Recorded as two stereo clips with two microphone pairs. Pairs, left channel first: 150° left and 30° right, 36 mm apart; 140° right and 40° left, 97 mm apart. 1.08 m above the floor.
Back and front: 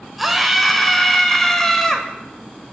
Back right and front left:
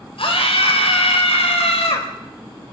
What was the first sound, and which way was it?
A scream, 120° right.